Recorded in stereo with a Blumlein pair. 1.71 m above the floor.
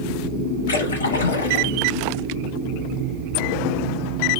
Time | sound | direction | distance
0.7 | a splash | 70° left | 1.5 m